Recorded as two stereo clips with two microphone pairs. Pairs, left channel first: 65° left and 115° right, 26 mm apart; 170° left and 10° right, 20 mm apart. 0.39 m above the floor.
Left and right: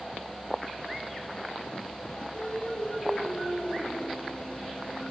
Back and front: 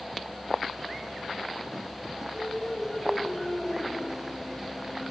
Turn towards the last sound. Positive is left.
turn(degrees=105)